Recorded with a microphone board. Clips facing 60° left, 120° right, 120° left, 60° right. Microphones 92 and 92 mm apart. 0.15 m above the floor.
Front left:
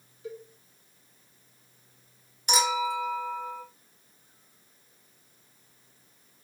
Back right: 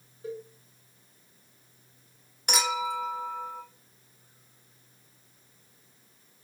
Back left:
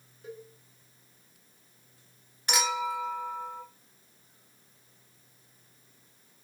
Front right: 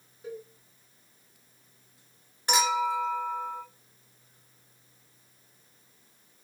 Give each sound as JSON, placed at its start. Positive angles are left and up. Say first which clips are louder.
{"t": 0.2, "sound": "a cowbell", "louder": "back right 3 dB, front right 4 dB", "azimuth_deg": -125, "distance_m": 2.0}
{"t": 2.5, "sound": "a clink", "louder": "front left 3 dB, front right 4 dB", "azimuth_deg": -120, "distance_m": 1.7}